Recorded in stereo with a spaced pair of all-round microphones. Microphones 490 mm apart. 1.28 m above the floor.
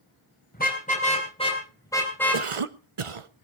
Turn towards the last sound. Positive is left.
turn(degrees=-90)